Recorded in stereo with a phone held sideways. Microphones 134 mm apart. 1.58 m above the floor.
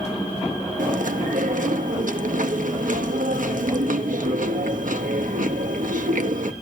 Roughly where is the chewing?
Right.